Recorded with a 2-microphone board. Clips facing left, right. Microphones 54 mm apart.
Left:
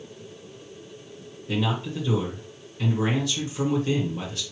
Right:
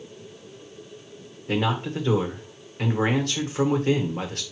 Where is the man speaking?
55° right (ahead or behind), 1.3 m.